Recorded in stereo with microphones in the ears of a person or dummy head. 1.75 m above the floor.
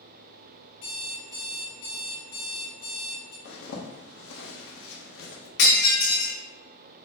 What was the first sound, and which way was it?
An alarm clock, 50° left (ahead or behind).